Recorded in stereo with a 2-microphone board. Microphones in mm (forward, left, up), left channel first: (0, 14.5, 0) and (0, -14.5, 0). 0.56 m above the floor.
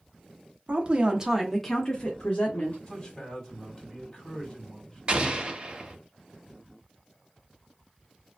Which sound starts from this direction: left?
A man speaking, at 2.9 s.